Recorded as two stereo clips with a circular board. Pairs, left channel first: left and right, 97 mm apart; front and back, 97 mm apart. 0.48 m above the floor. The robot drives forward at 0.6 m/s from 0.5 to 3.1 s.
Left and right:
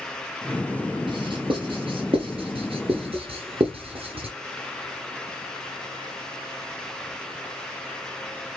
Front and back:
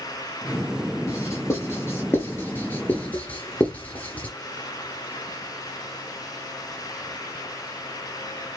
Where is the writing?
60° right, 4.5 m; by 4.3 s 75° right, 4 m.